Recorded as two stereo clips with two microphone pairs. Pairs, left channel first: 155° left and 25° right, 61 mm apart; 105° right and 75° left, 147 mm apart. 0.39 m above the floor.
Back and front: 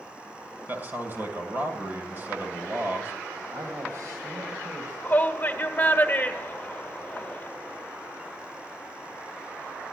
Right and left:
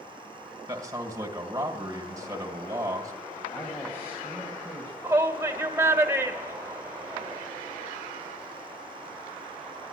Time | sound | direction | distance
0.7 | a man speaking | 15° left | 2.0 m
3.5 | a man speaking | 35° right | 2.5 m
5.0 | a shout | 130° left | 1.2 m